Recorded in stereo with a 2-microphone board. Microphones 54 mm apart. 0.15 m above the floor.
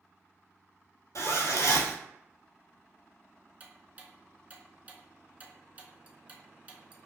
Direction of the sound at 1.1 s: 65° left (ahead or behind).